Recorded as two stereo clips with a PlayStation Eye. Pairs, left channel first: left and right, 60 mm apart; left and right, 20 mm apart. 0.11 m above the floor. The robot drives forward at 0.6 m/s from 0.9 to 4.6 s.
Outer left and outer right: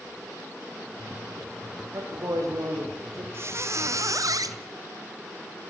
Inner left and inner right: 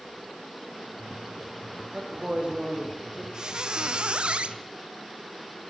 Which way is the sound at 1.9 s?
60° right (ahead or behind).